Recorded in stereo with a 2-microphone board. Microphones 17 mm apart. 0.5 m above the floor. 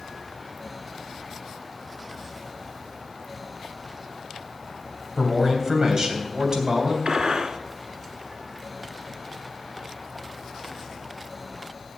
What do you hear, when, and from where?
5.2 s a man speaking: 25° right (ahead or behind), 3 m; by 7.0 s 50° right (ahead or behind), 3 m
7.0 s a gunshot: 65° right (ahead or behind), 1.1 m